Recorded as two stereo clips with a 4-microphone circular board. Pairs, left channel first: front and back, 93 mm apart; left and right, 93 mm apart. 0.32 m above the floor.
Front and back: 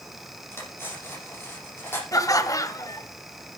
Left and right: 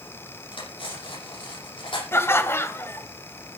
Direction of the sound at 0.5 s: 65° left.